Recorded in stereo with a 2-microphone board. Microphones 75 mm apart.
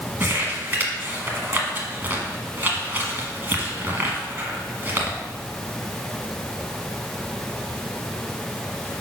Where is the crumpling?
25° right (ahead or behind), 1.1 m.